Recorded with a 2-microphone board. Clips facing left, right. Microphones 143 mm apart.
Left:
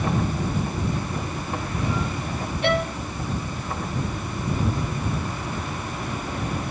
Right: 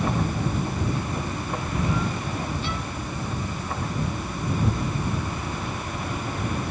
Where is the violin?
80° left.